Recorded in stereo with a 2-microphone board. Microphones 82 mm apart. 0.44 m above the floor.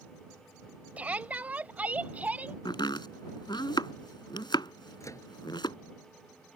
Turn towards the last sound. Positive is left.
turn(degrees=40)  # may be behind; listen again after turning